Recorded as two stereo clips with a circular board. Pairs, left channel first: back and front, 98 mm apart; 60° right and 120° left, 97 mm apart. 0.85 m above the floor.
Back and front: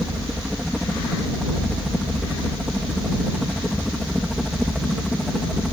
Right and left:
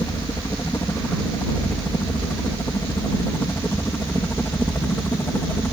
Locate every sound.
0.0 s a helicopter: 80° right; by 5.7 s 90° right